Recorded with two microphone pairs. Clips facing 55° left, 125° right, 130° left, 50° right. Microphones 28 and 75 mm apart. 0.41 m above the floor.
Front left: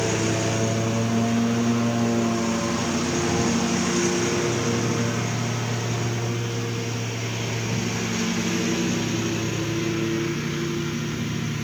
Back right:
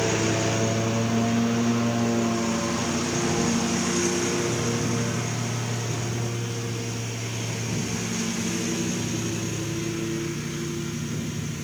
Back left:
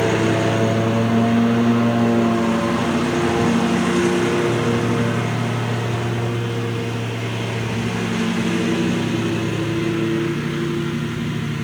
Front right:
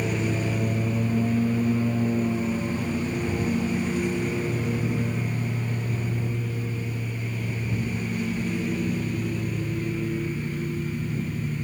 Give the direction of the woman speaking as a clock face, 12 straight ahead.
No woman speaking in this recording.